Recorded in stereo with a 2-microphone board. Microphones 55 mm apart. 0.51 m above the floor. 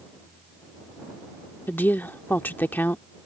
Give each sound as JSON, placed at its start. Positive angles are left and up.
{"t": 1.7, "sound": "a woman speaking", "side_deg": 35}